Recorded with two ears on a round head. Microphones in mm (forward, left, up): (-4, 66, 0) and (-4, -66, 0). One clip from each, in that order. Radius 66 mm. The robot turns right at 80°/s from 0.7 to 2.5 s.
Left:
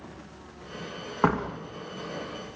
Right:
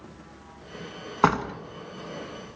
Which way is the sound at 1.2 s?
80° right.